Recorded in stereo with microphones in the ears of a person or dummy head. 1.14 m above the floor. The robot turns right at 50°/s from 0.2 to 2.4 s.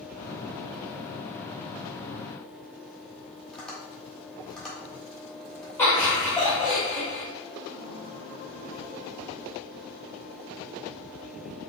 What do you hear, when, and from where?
3.5 s tapping: 5° left (ahead or behind), 1.6 m
5.8 s laughter: 10° left (ahead or behind), 1.1 m